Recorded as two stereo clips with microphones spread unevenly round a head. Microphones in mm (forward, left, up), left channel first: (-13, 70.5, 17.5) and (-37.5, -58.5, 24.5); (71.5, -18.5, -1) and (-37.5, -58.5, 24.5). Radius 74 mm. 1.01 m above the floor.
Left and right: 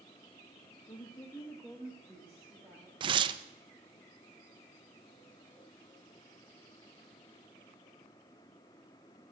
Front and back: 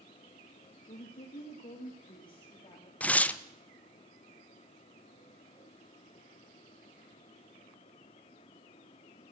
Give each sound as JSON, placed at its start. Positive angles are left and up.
{"t": 0.9, "sound": "a woman speaking", "azimuth_deg": 25, "distance_m": 1.0}
{"t": 3.0, "sound": "tearing paper", "azimuth_deg": -50, "distance_m": 0.5}